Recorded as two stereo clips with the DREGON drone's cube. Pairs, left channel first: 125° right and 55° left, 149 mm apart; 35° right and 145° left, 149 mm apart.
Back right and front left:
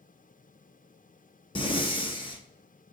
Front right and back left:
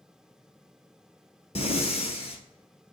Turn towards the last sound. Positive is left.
turn(degrees=-75)